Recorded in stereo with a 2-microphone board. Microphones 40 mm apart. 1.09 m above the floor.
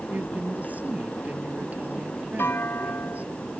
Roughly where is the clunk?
Left.